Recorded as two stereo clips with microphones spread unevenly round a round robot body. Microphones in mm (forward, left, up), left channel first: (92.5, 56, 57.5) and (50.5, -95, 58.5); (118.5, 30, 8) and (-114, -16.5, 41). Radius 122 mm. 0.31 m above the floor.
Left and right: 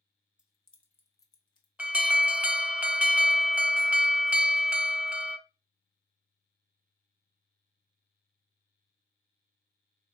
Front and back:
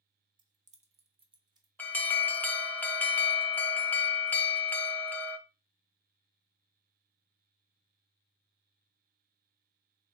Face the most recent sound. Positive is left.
turn(degrees=-35)